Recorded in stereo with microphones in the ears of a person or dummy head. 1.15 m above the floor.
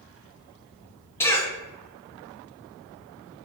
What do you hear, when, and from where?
1.2 s a cough: 10° left (ahead or behind), 0.7 m